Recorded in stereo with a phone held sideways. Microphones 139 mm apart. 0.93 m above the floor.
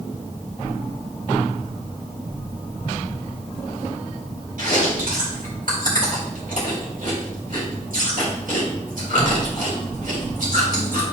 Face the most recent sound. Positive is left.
turn(degrees=-80)